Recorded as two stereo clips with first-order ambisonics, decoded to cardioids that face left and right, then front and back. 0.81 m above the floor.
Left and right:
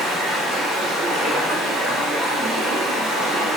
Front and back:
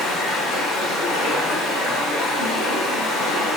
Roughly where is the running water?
Ahead right.